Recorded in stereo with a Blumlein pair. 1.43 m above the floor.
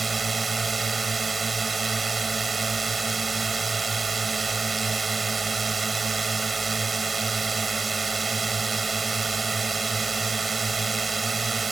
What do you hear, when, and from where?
0.0 s a drone: 15° right